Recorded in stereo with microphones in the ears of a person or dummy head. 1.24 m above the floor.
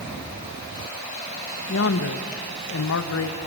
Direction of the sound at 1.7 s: 75° left (ahead or behind).